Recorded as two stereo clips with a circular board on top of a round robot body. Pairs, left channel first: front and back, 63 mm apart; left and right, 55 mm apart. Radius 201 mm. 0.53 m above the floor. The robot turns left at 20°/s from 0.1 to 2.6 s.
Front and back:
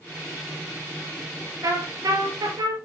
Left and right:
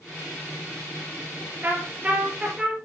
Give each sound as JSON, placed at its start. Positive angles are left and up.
{"t": 1.6, "sound": "a trumpet", "azimuth_deg": -150, "distance_m": 3.0}